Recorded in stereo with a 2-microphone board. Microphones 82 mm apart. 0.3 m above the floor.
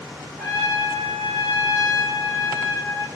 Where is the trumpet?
25° right (ahead or behind), 1.6 m.